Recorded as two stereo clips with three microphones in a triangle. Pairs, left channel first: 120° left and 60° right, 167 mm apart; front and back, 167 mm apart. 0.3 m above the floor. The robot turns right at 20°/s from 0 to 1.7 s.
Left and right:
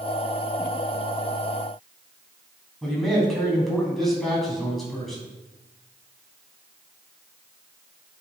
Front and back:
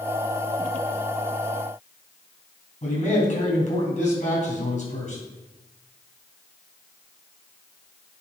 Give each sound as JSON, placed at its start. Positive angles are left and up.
{"t": 2.8, "sound": "a man speaking", "azimuth_deg": 30, "distance_m": 2.5}